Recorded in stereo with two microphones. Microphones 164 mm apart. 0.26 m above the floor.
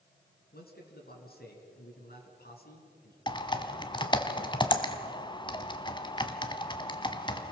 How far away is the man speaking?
About 4 m.